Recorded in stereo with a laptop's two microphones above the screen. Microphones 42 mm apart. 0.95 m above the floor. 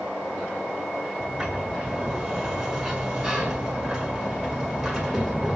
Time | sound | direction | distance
1.2 | a sliding door | 10° right (ahead or behind) | 6.5 m